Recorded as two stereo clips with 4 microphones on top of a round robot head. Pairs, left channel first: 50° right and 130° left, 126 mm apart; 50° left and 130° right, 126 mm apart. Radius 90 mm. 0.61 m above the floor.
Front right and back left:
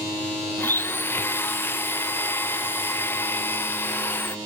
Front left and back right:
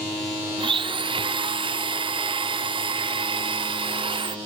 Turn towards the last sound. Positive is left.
turn(degrees=-115)